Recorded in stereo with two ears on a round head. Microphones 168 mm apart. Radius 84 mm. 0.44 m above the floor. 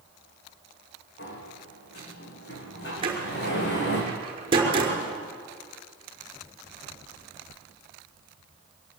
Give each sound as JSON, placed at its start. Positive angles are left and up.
{"t": 1.2, "sound": "a sliding door", "side_deg": 70, "distance_m": 6.0}
{"t": 3.0, "sound": "a door slam", "side_deg": -30, "distance_m": 5.0}